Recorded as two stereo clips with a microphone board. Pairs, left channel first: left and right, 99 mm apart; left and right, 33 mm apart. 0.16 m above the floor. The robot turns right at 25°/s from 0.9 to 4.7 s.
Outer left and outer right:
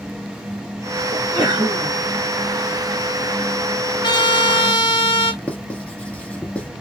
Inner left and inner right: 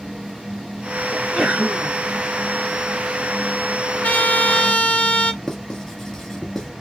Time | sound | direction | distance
1.1 | a sneeze | 35° right (ahead or behind) | 1.9 m
4.0 | a trumpet | 45° left (ahead or behind) | 1.1 m
5.4 | writing | 10° left (ahead or behind) | 0.9 m